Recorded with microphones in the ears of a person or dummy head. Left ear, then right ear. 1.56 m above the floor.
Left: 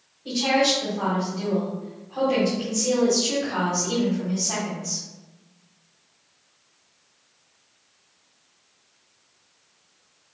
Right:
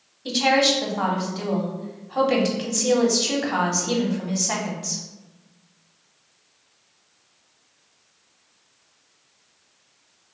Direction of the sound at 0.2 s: 65° right (ahead or behind).